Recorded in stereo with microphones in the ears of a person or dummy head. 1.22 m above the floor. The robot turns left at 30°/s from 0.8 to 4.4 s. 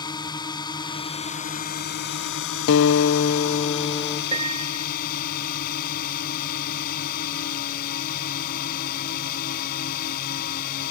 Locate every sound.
0.0 s a drone: 160° left; by 10.9 s 50° left
2.7 s a guitar: 65° left; by 4.2 s 20° left
4.3 s a piano: 30° right (ahead or behind)